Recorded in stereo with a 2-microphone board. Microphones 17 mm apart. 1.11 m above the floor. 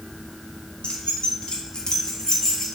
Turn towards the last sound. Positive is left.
turn(degrees=25)  # may be behind; listen again after turning